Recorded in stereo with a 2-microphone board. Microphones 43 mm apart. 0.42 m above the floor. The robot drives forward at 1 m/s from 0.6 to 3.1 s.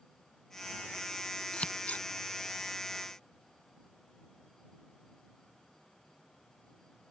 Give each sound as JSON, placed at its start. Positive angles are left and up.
{"t": 1.5, "sound": "scissors", "side_deg": 30}